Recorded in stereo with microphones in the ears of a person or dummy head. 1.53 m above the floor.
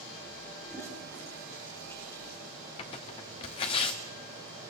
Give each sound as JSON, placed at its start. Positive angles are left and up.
{"t": 0.6, "sound": "a toilet flushing", "side_deg": 15, "distance_m": 6.0}
{"t": 2.8, "sound": "tearing paper", "side_deg": 20, "distance_m": 1.0}